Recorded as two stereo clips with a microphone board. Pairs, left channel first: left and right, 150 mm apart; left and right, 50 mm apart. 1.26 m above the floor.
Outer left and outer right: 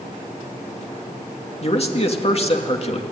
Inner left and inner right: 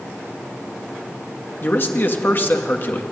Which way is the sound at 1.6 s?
45° left (ahead or behind).